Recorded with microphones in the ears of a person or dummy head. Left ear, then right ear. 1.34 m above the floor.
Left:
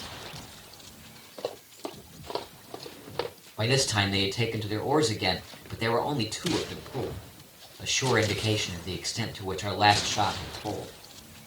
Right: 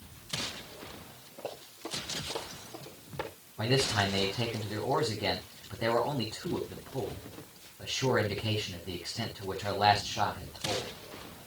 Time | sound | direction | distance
1.4 | running footsteps | 65° left (ahead or behind) | 3.5 m
3.6 | a man speaking | 85° left | 4 m